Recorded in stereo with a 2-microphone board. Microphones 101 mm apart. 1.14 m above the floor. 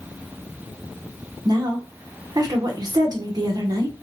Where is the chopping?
I don't hear chopping.